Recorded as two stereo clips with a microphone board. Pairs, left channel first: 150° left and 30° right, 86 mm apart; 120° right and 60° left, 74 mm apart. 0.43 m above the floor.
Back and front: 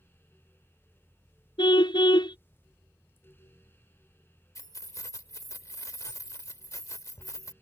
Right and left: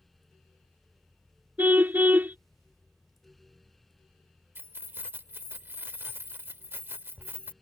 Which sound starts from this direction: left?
Keys jangling, at 4.5 s.